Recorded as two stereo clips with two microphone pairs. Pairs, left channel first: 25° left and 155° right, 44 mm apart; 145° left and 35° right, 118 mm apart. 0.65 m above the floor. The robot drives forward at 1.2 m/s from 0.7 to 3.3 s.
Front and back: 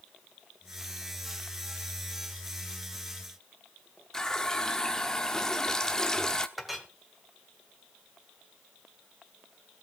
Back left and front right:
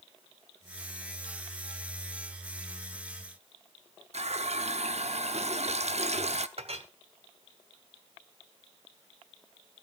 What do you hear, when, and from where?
4.1 s a running tap: 50° right, 0.8 m
6.6 s a clink: 65° right, 1.4 m